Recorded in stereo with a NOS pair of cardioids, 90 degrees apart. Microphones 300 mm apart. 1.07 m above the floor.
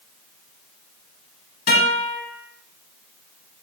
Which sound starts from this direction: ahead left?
A guitar, at 1.7 s.